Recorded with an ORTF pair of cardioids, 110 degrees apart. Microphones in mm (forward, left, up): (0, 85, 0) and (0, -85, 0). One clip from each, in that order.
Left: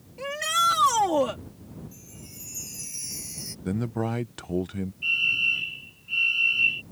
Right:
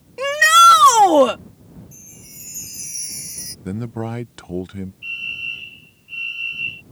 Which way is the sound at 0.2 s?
65° right.